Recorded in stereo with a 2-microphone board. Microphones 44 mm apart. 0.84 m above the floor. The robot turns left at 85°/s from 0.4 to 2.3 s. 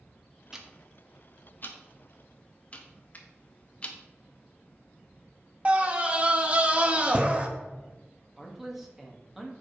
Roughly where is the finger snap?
Left.